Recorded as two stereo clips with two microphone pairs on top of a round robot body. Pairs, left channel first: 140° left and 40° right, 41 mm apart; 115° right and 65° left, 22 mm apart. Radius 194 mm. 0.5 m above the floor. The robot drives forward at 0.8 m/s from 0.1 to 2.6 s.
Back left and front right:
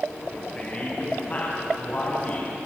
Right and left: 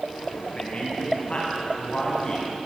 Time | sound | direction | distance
0.6 | a man speaking | 160° right | 4.5 m